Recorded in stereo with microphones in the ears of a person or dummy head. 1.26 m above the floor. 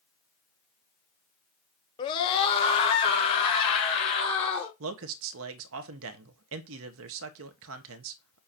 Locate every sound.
2.0 s a scream: 25° left (ahead or behind), 0.8 m; by 4.7 s 35° left (ahead or behind), 3 m
4.8 s a man speaking: 70° right (ahead or behind), 0.8 m